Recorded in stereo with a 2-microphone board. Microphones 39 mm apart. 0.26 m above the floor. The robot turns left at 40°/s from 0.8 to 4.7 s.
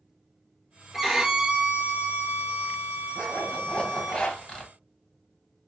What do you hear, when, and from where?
0.9 s a violin: 5° right, 0.7 m; by 4.2 s 135° right, 0.7 m
3.1 s a zipper: 15° left (ahead or behind), 1.5 m; by 4.7 s 20° left (ahead or behind), 1.5 m